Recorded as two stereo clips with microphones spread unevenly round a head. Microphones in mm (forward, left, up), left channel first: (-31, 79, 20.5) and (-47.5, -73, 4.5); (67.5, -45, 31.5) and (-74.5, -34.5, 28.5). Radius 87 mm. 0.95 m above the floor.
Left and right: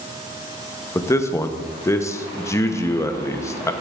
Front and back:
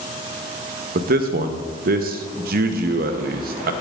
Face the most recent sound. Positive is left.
turn(degrees=160)